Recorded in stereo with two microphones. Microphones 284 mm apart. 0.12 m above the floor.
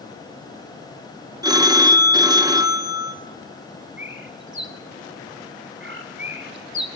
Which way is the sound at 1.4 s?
15° right (ahead or behind).